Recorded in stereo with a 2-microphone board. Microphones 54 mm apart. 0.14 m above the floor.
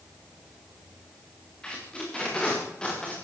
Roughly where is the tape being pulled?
Centre.